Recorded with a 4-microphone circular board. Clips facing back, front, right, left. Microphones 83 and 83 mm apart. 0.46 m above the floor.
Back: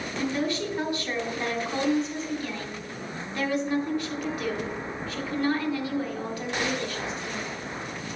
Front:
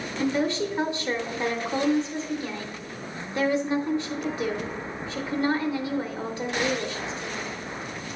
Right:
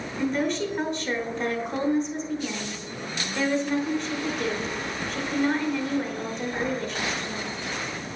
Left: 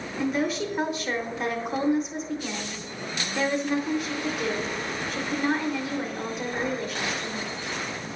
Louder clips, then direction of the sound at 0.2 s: Front 3 dB, right 1 dB; 15° left.